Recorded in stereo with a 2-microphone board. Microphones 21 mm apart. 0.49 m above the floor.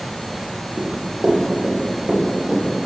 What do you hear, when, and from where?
0.8 s running footsteps: 45° right (ahead or behind), 4.5 m; by 2.9 s 50° right (ahead or behind), 6.5 m